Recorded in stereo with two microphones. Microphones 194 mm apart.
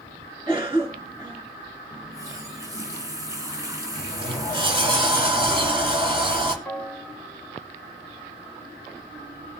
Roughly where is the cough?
Right.